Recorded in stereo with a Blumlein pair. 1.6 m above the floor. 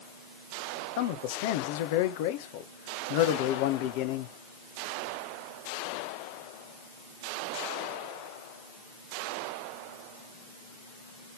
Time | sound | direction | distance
1.0 | a man speaking | 50° left | 1.7 m